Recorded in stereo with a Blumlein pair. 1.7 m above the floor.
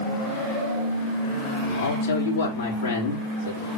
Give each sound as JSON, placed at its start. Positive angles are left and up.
{"t": 1.6, "sound": "a man speaking", "azimuth_deg": 65, "distance_m": 3.5}